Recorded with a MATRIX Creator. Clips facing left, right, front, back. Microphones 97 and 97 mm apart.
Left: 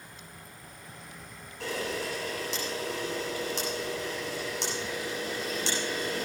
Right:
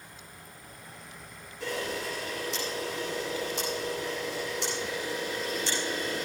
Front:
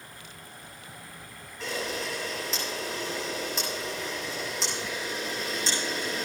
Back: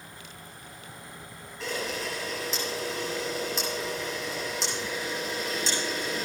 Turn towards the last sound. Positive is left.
turn(degrees=90)